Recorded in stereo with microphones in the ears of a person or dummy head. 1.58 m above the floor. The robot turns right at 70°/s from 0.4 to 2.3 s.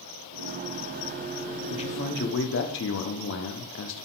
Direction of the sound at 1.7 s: 25° left.